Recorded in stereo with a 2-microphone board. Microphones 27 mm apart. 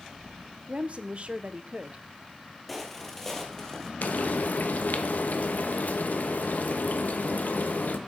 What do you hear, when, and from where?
0.7 s a woman speaking: 45° right (ahead or behind), 0.9 m
2.7 s footsteps: centre (ahead or behind), 2 m; by 3.9 s 20° left (ahead or behind), 2.5 m
4.0 s frying: 90° left, 1.0 m